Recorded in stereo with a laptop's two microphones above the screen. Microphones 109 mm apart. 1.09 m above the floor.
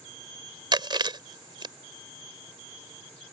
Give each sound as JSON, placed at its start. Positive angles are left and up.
{"t": 0.7, "sound": "chewing", "side_deg": -45}